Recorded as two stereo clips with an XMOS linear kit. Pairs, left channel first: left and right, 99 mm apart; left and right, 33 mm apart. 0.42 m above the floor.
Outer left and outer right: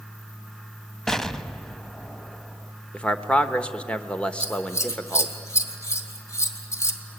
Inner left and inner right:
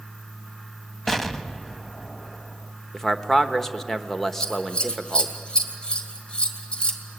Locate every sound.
1.1 s an explosion: 5° left (ahead or behind), 0.8 m
2.9 s a man speaking: 10° left (ahead or behind), 1.1 m
4.4 s scissors: 30° left (ahead or behind), 2 m